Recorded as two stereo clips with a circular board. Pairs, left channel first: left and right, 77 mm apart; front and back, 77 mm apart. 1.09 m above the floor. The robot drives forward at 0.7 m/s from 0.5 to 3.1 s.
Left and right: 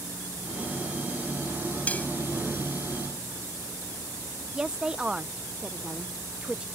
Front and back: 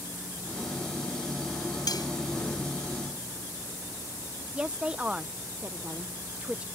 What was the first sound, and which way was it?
Cutlery clinking, 25° left.